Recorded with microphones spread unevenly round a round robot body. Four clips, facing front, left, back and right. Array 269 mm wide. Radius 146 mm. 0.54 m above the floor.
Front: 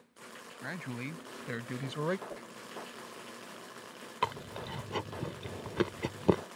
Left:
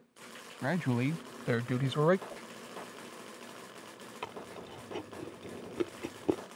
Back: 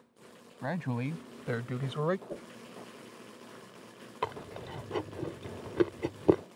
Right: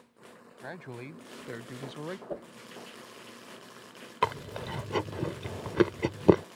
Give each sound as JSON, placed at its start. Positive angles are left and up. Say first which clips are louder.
{"t": 0.6, "sound": "a man speaking", "louder": "left 11 dB, back 7 dB", "azimuth_deg": 115}
{"t": 2.3, "sound": "a whoosh", "louder": "right 8 dB, back 3 dB", "azimuth_deg": -130}
{"t": 4.2, "sound": "chewing", "louder": "right 13 dB, front 2 dB", "azimuth_deg": -70}